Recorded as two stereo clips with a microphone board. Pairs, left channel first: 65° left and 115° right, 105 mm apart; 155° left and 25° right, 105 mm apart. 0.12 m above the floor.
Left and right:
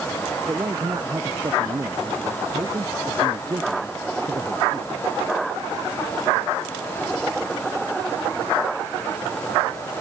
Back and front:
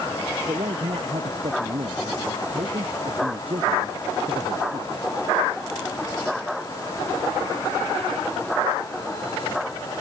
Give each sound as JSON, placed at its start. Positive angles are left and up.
{"t": 0.5, "sound": "a man speaking", "azimuth_deg": -55}